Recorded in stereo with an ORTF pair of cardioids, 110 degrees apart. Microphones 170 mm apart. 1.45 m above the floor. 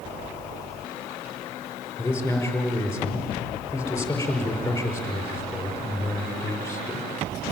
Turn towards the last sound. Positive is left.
turn(degrees=15)